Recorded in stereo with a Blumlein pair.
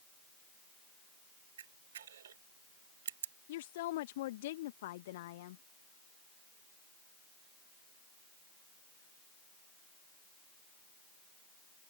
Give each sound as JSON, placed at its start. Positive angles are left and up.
{"t": 1.6, "sound": "a camera shutter", "azimuth_deg": -60}
{"t": 3.5, "sound": "a woman speaking", "azimuth_deg": 55}